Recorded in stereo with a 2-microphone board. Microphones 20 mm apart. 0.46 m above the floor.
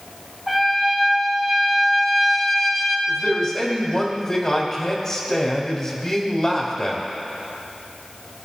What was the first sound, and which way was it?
A trumpet, 5° left (ahead or behind).